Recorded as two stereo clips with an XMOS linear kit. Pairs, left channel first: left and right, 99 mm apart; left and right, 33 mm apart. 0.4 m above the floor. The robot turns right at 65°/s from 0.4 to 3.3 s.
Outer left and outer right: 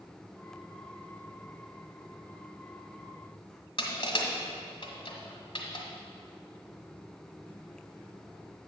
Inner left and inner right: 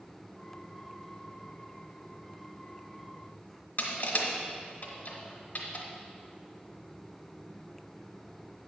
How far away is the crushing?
About 1.3 m.